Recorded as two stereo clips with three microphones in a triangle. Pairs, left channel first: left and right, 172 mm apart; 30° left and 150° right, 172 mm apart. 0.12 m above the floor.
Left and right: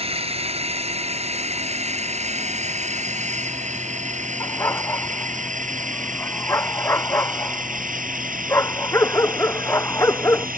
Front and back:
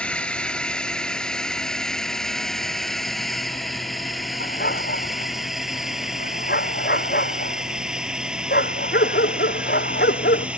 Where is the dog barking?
15° left.